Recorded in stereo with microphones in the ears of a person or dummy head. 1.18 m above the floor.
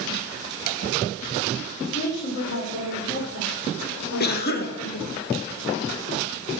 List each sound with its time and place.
1.8 s a woman speaking: 60° left (ahead or behind), 4 m
4.2 s a cough: 60° left (ahead or behind), 1.8 m